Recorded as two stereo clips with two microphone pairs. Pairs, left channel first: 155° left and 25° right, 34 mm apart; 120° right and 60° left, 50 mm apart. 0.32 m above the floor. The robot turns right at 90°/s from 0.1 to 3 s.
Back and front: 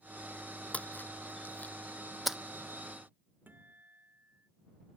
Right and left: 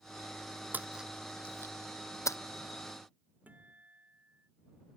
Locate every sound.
0.7 s a splash: 110° left; by 2.4 s 100° right
3.5 s a guitar: straight ahead